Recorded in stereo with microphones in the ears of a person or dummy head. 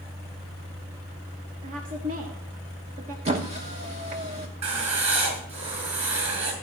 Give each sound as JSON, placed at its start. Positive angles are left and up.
{"t": 1.6, "sound": "a woman speaking", "side_deg": -45, "distance_m": 1.0}
{"t": 3.2, "sound": "a squeak", "side_deg": -30, "distance_m": 1.1}
{"t": 4.6, "sound": "writing", "side_deg": -35, "distance_m": 4.0}